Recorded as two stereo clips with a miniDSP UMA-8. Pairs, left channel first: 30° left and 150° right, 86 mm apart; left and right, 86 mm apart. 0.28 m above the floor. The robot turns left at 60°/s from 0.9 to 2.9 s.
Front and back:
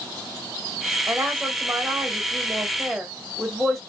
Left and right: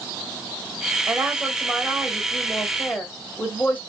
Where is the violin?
I don't hear a violin.